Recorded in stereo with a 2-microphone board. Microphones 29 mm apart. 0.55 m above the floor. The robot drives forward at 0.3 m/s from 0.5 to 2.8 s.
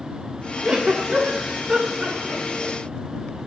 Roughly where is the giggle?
Right.